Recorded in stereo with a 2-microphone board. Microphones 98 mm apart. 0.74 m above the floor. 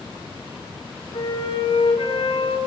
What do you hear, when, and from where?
1.1 s a flute: 80° left, 6 m